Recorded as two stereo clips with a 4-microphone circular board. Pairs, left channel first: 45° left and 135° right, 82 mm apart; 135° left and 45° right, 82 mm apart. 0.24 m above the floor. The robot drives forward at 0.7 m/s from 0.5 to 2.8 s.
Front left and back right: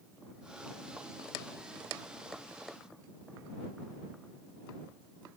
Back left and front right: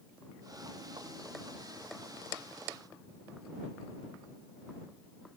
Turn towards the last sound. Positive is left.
No sound to turn to.